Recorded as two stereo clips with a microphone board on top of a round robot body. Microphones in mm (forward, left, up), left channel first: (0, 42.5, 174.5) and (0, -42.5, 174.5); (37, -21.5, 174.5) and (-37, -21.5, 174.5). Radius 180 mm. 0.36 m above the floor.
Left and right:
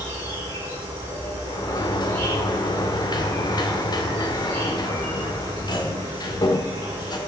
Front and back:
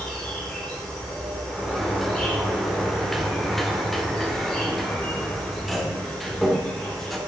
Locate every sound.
0.0 s an insect: 80° right, 6.5 m
1.5 s a sliding door: 85° left, 2 m